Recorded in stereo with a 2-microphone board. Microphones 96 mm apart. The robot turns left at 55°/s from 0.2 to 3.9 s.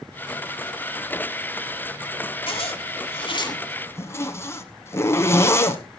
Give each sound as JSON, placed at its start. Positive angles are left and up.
{"t": 2.5, "sound": "a zipper", "side_deg": 70, "distance_m": 1.2}